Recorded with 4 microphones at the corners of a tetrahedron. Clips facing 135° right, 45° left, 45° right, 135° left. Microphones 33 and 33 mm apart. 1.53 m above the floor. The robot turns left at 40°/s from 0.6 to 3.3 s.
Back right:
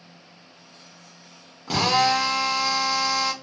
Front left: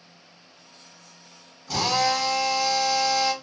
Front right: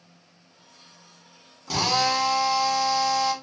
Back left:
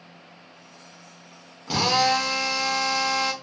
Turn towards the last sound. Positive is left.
turn(degrees=135)